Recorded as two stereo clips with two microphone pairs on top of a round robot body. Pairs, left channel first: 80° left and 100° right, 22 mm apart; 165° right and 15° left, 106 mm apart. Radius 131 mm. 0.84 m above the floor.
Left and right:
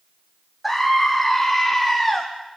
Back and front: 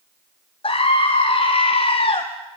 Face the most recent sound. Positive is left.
turn(degrees=160)